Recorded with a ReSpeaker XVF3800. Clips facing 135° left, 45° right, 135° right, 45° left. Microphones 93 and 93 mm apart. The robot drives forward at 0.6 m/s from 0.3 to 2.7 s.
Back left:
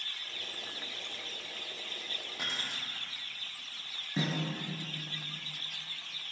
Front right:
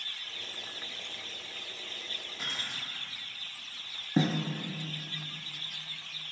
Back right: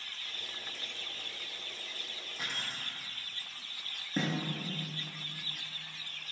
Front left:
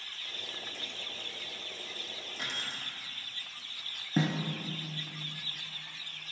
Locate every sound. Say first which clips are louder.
2.4 s keys jangling: even, even; 145° left, 1.9 m; by 2.8 s 150° left, 2 m
4.2 s a snare drum: front right 6 dB, front left 3 dB; 20° right, 0.6 m